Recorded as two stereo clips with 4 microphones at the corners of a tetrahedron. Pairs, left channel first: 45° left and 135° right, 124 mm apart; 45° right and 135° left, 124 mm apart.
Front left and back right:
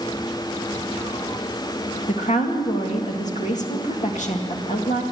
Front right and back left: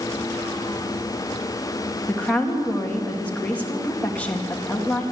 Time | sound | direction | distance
2.1 | a woman speaking | 35° left | 2 m